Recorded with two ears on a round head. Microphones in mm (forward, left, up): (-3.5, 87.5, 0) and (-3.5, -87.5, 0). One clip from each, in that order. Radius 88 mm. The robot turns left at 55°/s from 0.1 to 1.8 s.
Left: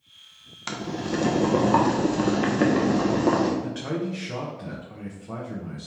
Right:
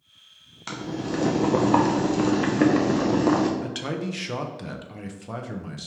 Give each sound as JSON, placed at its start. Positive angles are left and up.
{"t": 0.7, "sound": "boiling", "side_deg": 15, "distance_m": 0.5}
{"t": 3.6, "sound": "a man speaking", "side_deg": -70, "distance_m": 0.6}